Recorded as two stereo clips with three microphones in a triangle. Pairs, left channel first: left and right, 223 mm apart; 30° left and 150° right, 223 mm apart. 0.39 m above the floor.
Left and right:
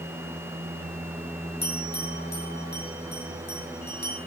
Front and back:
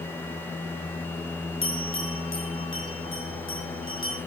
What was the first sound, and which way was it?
A bell, 50° left.